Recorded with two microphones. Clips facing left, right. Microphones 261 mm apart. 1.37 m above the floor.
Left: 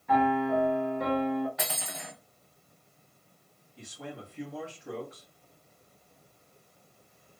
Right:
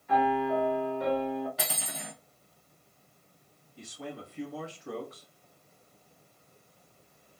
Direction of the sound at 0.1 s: 65° left (ahead or behind).